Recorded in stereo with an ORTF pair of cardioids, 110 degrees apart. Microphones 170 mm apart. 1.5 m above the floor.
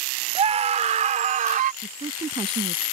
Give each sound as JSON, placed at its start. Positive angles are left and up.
{"t": 0.3, "sound": "a scream", "azimuth_deg": -40}
{"t": 1.8, "sound": "a woman speaking", "azimuth_deg": -30}